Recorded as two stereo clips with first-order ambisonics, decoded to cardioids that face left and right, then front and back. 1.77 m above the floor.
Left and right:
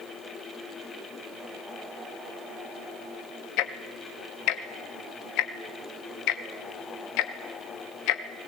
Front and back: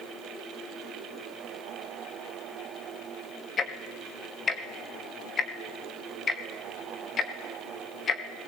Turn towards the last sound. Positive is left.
turn(degrees=65)